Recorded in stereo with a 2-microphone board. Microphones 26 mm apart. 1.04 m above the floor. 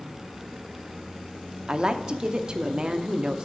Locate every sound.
1.7 s a woman speaking: 30° right (ahead or behind), 0.6 m